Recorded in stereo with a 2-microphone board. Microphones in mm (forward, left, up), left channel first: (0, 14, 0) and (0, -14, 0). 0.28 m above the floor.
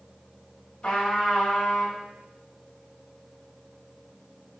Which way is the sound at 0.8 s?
35° left (ahead or behind).